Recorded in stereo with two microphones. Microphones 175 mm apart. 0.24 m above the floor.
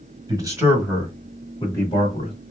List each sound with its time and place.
0.3 s a man speaking: 20° right (ahead or behind), 1.6 m; by 2.3 s 35° left (ahead or behind), 1.7 m